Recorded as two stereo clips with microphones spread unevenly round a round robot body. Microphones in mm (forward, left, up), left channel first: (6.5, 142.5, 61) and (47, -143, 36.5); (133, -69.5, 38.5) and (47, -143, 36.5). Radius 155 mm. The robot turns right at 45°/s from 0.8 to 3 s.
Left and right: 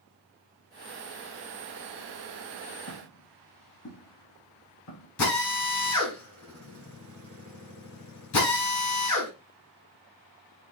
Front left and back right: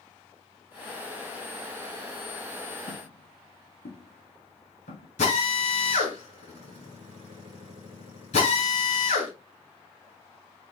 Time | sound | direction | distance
2.9 | footsteps | 65° left | 5 m
5.2 | a drill | 75° left | 7 m